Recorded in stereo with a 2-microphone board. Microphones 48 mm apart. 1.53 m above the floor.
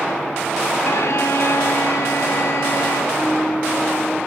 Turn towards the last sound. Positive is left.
turn(degrees=-35)  # may be behind; listen again after turning